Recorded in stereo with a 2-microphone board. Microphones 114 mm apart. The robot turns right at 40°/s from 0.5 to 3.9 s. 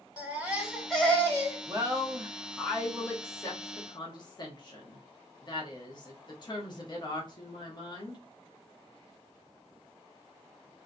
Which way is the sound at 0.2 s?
10° right.